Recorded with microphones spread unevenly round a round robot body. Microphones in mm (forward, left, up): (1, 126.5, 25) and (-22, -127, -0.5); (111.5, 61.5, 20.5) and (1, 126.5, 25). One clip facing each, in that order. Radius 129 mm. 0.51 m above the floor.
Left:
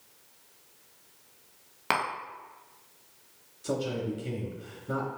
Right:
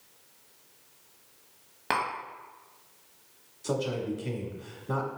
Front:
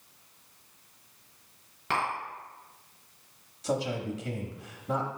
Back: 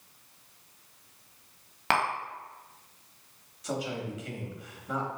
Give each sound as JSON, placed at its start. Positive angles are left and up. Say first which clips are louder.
{"t": 1.9, "sound": "tapping", "louder": "even, back 3 dB", "azimuth_deg": 160, "distance_m": 0.9}
{"t": 3.6, "sound": "a man speaking", "louder": "right 1 dB, front 3 dB", "azimuth_deg": 10, "distance_m": 0.8}